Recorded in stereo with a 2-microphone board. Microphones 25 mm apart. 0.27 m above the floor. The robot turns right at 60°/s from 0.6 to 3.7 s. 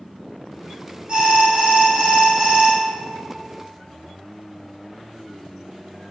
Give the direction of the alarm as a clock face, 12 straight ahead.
4 o'clock.